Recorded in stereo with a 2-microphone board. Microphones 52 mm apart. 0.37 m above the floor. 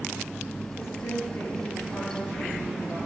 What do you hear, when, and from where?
0.8 s a woman speaking: 55° left (ahead or behind), 7 m